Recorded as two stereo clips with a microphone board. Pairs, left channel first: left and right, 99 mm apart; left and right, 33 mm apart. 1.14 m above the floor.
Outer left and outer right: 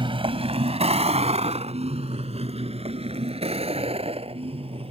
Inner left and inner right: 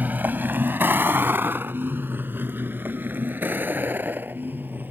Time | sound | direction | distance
0.0 | a vehicle | 55° right (ahead or behind) | ?